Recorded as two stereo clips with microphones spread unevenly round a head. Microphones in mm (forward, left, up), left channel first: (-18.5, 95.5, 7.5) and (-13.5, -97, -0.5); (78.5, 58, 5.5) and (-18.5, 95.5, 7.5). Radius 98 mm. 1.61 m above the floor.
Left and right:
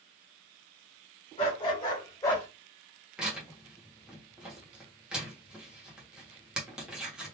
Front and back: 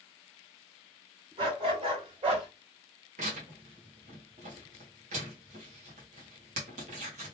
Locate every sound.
1.4 s a dog barking: 145° left, 2.0 m; by 2.5 s 165° left, 2 m
3.2 s tearing paper: 175° right, 1.3 m